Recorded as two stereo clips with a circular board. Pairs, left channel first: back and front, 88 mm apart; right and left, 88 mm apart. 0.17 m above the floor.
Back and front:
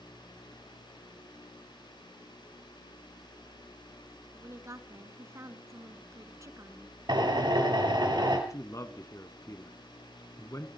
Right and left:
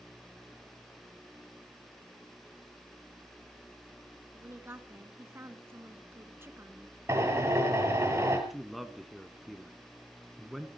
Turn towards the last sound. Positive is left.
turn(degrees=180)